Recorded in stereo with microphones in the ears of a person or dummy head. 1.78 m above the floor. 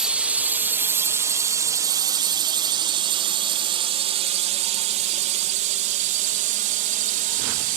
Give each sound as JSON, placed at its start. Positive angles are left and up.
{"t": 0.0, "sound": "a drone", "side_deg": 0}